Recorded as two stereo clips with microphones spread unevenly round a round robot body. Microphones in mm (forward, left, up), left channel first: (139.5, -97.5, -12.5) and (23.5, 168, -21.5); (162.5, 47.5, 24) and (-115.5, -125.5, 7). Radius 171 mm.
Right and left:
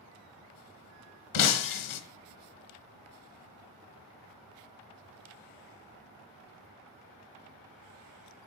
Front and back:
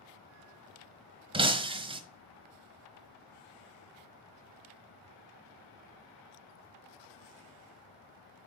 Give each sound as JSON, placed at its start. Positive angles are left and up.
{"t": 1.3, "sound": "breaking glass", "azimuth_deg": -75, "distance_m": 0.9}